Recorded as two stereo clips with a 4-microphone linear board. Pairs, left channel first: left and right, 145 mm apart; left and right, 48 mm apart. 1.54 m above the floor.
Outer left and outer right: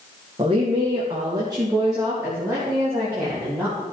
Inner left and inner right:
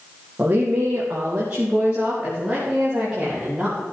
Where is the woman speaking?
35° right (ahead or behind), 1.9 m; by 3.8 s 15° right (ahead or behind), 3.5 m.